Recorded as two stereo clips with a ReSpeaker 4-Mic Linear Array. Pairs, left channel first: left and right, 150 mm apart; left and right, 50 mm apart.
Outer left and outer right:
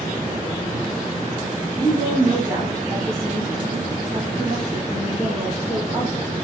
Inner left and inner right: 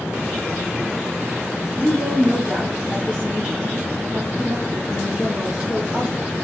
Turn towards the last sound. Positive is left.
turn(degrees=-20)  # may be behind; listen again after turning